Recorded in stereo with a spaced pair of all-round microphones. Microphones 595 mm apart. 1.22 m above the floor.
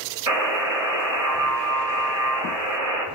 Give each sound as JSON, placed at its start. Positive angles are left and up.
{"t": 0.3, "sound": "a buzzer", "side_deg": -80, "distance_m": 5.5}